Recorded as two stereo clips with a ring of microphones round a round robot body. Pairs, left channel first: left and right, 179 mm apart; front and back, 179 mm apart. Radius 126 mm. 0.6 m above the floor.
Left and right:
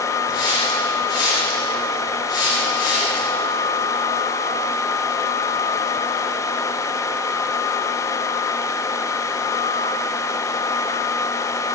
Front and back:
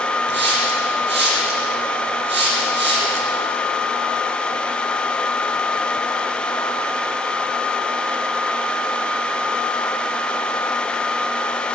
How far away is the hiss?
About 7 m.